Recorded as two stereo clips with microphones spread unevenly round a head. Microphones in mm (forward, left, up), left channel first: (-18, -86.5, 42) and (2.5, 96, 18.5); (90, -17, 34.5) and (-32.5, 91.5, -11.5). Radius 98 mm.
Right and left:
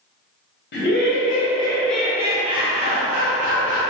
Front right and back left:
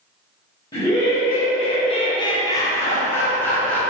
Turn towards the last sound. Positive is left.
turn(degrees=45)